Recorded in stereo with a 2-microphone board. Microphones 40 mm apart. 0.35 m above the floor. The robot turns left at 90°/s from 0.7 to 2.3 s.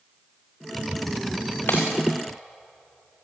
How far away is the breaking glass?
About 5.5 m.